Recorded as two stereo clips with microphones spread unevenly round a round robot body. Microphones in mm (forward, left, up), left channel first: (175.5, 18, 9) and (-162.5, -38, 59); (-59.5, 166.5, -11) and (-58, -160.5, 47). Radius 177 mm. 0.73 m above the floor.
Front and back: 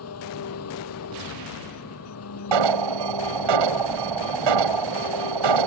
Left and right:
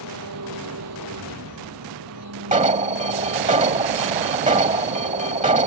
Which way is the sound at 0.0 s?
40° right.